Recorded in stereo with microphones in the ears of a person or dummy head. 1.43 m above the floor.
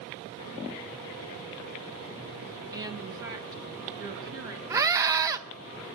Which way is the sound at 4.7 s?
15° right (ahead or behind).